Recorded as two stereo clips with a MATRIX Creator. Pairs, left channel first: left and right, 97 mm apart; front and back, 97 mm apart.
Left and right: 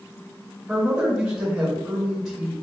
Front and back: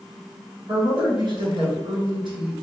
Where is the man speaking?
175° right, 1.7 m.